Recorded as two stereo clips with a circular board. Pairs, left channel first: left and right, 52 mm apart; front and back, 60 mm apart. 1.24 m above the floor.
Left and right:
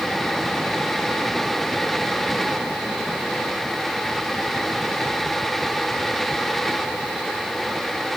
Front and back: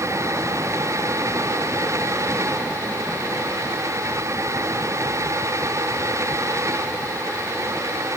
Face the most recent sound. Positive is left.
No sound to turn to.